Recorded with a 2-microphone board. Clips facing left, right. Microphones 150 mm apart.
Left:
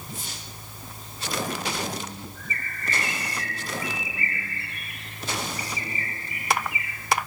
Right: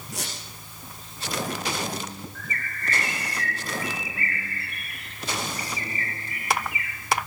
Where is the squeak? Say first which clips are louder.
Right 6 dB; 80° right, 9 m.